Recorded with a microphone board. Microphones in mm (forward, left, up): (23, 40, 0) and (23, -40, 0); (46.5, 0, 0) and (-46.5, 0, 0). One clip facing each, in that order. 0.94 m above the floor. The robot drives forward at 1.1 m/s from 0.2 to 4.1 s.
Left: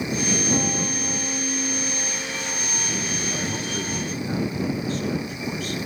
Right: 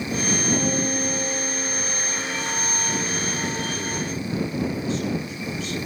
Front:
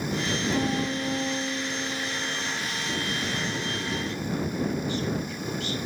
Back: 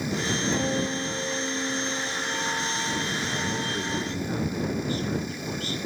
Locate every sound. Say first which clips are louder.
0.5 s a piano: right 2 dB, even; 90° left, 7 m; by 2.6 s 105° left, 7.5 m
3.3 s a man speaking: right 1 dB, back 1 dB; 125° left, 6.5 m; by 5.8 s 130° left, 7 m